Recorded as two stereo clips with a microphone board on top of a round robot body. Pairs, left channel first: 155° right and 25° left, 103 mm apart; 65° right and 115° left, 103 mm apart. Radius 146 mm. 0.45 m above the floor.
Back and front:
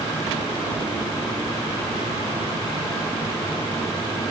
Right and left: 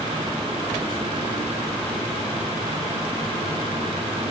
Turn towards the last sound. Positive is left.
No sound to turn to.